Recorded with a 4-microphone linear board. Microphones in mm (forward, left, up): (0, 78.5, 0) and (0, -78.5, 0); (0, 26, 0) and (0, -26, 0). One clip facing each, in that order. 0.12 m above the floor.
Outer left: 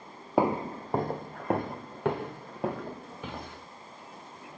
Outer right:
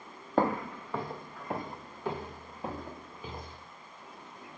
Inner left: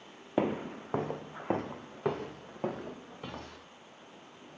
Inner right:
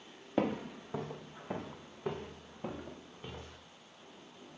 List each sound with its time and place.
0.4 s footsteps: 10° left (ahead or behind), 0.5 m; by 3.6 s 75° left (ahead or behind), 3 m